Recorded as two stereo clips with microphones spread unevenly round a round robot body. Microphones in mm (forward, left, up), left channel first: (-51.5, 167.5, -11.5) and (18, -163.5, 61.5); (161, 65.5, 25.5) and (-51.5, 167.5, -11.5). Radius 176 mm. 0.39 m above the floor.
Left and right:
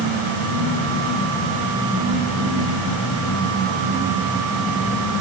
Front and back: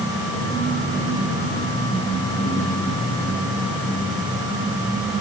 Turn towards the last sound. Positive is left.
No sound to turn to.